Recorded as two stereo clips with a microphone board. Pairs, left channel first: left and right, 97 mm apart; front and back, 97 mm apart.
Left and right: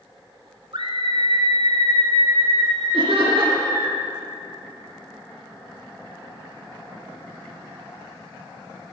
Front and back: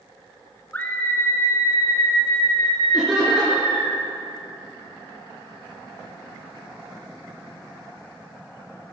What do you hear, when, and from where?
0.7 s a scream: 70° right, 2.5 m; by 3.9 s 30° right, 5 m
2.9 s laughter: 95° right, 4 m